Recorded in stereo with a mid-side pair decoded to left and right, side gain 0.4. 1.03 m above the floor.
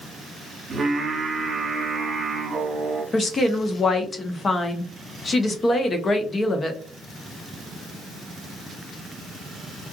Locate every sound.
0.7 s singing: 50° right, 1.2 m
3.1 s a woman speaking: 40° left, 0.8 m